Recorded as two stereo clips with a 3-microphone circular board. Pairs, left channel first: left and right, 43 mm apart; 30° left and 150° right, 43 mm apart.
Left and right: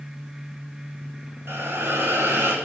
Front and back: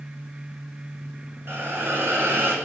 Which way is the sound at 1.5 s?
115° right.